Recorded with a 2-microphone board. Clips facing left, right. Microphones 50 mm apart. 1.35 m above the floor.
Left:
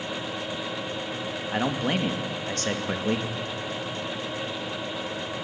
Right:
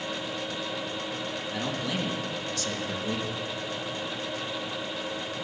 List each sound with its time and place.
1.5 s a man speaking: 45° left (ahead or behind), 2.0 m